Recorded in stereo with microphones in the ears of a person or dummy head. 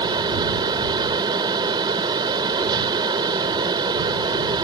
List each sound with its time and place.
0.0 s a fan: 25° right (ahead or behind)